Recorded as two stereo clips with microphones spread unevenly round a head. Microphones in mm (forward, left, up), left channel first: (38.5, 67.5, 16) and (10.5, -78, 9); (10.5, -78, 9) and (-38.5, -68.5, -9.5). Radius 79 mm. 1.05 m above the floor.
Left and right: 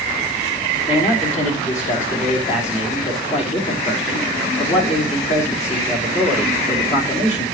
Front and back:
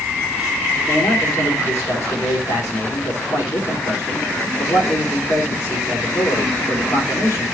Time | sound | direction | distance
0.9 | a man speaking | 35° left | 3 m